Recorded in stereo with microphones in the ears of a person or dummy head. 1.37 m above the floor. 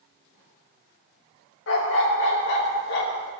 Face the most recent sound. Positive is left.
turn(degrees=55)  # may be behind; listen again after turning